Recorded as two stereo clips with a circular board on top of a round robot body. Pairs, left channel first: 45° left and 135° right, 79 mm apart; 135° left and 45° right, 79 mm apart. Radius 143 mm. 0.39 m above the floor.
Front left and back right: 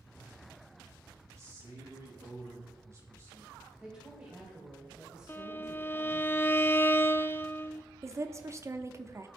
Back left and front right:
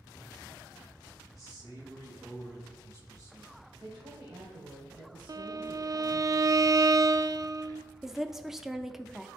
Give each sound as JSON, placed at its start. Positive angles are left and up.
{"t": 1.3, "sound": "a man speaking", "azimuth_deg": -85, "distance_m": 4.0}
{"t": 3.8, "sound": "a woman speaking", "azimuth_deg": -65, "distance_m": 3.0}
{"t": 5.3, "sound": "a violin", "azimuth_deg": -15, "distance_m": 0.5}
{"t": 8.0, "sound": "a woman speaking", "azimuth_deg": -125, "distance_m": 0.9}